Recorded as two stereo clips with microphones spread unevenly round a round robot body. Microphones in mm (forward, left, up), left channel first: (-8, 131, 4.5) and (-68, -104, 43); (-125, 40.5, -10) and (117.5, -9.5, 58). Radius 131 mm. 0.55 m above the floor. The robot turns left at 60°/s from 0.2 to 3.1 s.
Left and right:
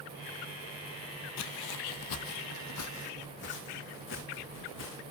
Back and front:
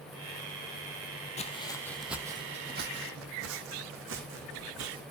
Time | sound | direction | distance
1.4 | footsteps | 95° left | 1.0 m